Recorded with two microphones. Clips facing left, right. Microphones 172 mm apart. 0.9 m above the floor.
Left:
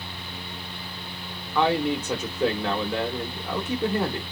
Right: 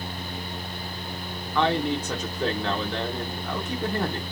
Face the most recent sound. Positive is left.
turn(degrees=10)  # may be behind; listen again after turning